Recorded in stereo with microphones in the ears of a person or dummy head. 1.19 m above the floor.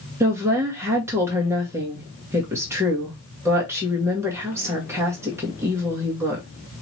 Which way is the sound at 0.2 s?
15° right (ahead or behind).